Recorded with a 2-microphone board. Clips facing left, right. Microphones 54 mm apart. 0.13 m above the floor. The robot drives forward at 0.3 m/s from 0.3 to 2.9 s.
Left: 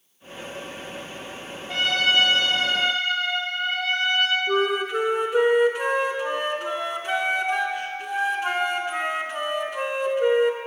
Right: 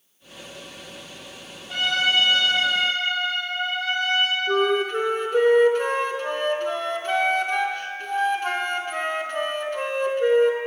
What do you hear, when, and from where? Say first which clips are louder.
1.7 s a trumpet: even; 55° left (ahead or behind), 2.5 m
4.5 s a flute: right 2 dB; 10° left (ahead or behind), 0.6 m